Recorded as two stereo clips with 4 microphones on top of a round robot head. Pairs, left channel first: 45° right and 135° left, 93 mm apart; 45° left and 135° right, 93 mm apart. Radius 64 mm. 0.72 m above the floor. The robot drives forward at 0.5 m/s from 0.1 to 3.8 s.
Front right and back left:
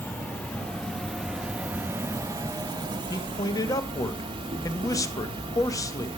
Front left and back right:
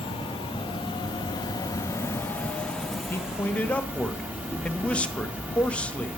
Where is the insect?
25° left, 1.2 m; by 6.2 s 150° left, 1.1 m.